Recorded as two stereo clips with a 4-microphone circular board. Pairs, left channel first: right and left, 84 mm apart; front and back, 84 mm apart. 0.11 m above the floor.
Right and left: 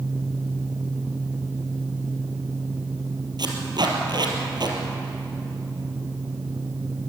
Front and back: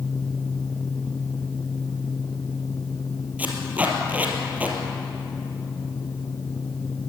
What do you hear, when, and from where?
3.4 s tape being pulled: 110° left, 3.5 m